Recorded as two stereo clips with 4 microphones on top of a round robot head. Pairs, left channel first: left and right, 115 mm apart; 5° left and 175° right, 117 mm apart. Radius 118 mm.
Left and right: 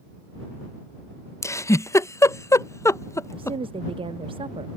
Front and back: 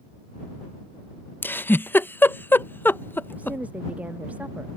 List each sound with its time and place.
1.4 s a giggle: 60° left
3.3 s a woman speaking: 105° right